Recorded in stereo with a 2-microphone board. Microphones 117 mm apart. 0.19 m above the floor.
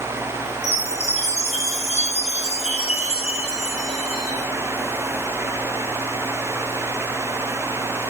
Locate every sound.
0.6 s a chime: 65° left (ahead or behind), 7.5 m